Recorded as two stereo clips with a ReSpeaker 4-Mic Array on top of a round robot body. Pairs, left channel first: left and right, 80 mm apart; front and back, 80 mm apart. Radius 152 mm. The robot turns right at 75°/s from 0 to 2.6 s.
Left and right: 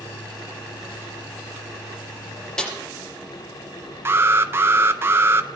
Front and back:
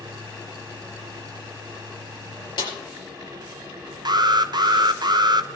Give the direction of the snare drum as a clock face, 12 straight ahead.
12 o'clock.